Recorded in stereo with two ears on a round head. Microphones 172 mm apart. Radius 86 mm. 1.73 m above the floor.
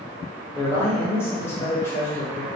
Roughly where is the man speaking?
Centre.